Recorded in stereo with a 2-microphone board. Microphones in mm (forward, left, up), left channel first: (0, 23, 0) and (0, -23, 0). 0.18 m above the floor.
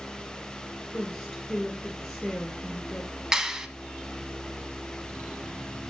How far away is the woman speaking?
About 2 m.